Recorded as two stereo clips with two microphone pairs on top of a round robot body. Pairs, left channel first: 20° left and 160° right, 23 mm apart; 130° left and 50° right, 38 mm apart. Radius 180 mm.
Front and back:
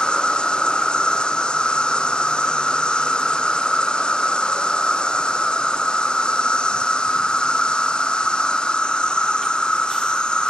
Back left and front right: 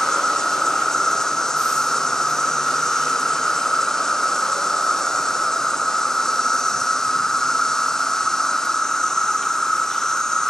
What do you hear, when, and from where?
0.0 s an insect: 50° left